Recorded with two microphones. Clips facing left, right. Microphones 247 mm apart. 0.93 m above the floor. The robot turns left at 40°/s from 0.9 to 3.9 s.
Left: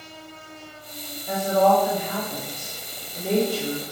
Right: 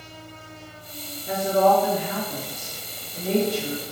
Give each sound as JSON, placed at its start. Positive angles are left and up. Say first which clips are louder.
{"t": 1.3, "sound": "a woman speaking", "louder": "even", "azimuth_deg": -130, "distance_m": 1.3}